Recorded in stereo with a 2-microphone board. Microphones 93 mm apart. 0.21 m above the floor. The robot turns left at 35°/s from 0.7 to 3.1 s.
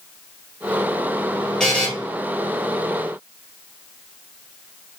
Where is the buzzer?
5° left (ahead or behind), 2 m; by 1.9 s 15° left (ahead or behind), 2 m.